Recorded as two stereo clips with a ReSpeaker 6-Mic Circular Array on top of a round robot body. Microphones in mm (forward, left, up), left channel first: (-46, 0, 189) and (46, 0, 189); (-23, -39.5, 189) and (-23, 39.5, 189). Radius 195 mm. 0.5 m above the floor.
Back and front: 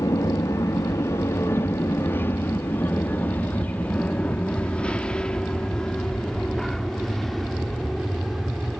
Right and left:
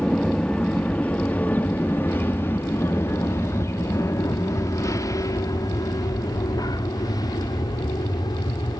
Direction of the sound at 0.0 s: 160° right.